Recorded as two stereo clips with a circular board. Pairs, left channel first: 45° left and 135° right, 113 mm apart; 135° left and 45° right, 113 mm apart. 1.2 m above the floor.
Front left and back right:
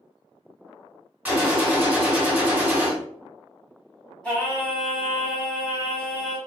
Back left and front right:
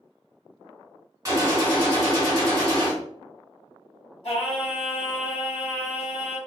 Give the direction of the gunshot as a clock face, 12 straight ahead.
2 o'clock.